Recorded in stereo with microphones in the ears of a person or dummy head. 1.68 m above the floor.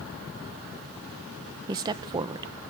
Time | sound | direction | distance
1.7 | a woman speaking | 25° right (ahead or behind) | 1.0 m